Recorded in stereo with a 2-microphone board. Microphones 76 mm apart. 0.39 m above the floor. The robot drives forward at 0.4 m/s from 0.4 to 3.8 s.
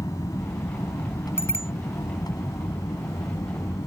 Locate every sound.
0.0 s an aircraft: 55° left (ahead or behind); by 3.9 s 65° left (ahead or behind)
1.4 s a bicycle bell: 35° left (ahead or behind)